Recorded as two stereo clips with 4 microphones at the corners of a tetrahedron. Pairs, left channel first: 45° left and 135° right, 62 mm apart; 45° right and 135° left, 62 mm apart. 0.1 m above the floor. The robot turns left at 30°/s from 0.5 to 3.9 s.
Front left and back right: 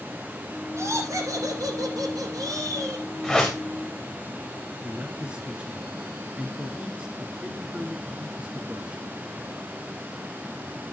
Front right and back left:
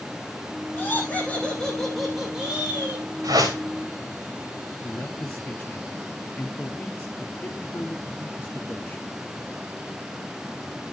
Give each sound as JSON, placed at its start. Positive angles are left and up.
{"t": 0.8, "sound": "laughter", "azimuth_deg": -100, "distance_m": 7.0}
{"t": 3.2, "sound": "a whoosh", "azimuth_deg": 135, "distance_m": 4.5}
{"t": 4.8, "sound": "a man speaking", "azimuth_deg": -80, "distance_m": 1.7}